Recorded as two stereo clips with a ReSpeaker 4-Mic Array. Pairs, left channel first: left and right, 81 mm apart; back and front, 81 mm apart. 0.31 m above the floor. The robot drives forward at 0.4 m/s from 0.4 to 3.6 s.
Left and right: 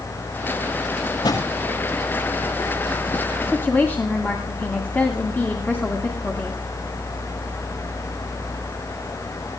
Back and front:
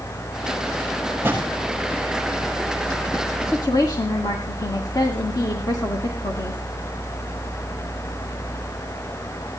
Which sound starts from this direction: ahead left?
A drawer, at 1.2 s.